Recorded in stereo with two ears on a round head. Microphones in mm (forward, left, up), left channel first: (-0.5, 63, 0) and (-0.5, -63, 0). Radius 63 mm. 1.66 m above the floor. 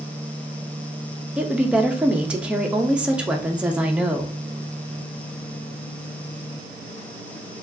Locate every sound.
1.4 s a woman speaking: 10° right (ahead or behind), 0.7 m